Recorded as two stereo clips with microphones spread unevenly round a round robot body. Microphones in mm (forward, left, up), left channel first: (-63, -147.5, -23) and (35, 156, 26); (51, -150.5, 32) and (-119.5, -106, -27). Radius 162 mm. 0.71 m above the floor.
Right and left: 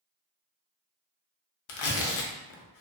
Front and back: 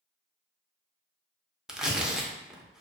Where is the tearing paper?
100° right, 0.6 m.